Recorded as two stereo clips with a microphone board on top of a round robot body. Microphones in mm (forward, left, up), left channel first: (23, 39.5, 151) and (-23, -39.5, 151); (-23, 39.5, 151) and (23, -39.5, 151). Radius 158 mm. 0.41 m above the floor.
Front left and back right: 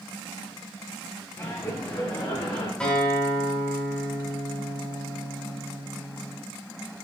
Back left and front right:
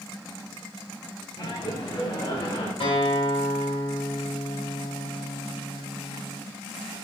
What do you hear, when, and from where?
1.4 s laughter: 105° left, 1.1 m; by 2.7 s 80° left, 1.6 m
2.8 s a guitar: 135° left, 1.7 m